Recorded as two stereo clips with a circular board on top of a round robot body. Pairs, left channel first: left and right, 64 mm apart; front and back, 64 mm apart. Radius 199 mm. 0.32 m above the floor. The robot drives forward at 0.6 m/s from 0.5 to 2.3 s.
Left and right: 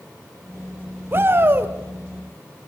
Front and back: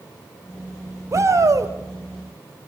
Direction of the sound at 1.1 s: 145° right.